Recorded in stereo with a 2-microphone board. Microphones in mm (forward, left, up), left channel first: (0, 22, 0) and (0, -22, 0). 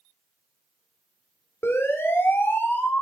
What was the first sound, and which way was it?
A siren, 80° left.